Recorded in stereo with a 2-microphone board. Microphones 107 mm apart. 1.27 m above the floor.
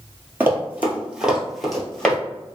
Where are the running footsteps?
20° right (ahead or behind), 1.3 m; by 2.2 s 10° left (ahead or behind), 1.3 m.